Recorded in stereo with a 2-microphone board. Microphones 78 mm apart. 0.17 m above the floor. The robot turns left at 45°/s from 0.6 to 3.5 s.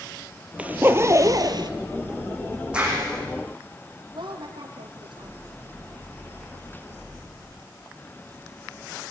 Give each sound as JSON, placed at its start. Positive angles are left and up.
{"t": 0.6, "sound": "a zipper", "azimuth_deg": -15, "distance_m": 1.4}
{"t": 2.7, "sound": "a clap", "side_deg": -15, "distance_m": 8.5}
{"t": 4.1, "sound": "a woman speaking", "side_deg": -80, "distance_m": 7.0}